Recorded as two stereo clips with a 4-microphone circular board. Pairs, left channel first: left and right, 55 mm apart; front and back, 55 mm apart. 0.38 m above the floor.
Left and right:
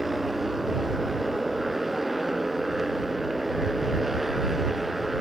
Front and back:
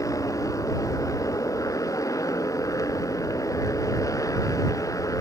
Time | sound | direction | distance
0.0 | a motorcycle | 5° right | ?